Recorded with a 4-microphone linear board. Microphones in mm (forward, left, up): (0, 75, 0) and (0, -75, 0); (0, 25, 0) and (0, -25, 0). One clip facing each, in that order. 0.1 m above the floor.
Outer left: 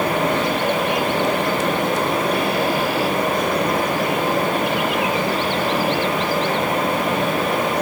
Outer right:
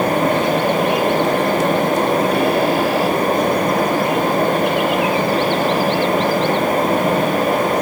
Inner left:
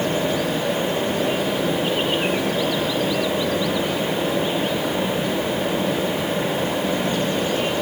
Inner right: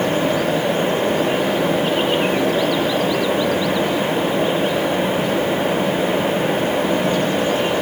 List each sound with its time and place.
Only background noise.